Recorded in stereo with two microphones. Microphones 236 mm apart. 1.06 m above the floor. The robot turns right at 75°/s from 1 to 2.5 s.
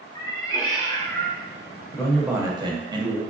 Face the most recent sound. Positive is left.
turn(degrees=-160)